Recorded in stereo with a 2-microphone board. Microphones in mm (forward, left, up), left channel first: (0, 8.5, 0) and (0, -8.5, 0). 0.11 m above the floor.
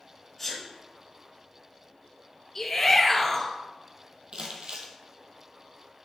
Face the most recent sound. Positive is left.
turn(degrees=-65)  # may be behind; listen again after turning